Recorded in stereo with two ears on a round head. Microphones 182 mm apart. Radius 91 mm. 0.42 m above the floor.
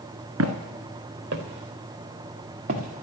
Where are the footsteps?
75° right (ahead or behind), 1.9 m; by 3.0 s 35° right (ahead or behind), 2.5 m.